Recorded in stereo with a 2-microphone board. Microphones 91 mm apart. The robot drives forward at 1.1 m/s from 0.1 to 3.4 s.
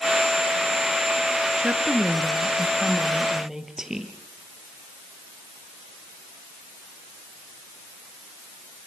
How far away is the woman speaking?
About 1.5 m.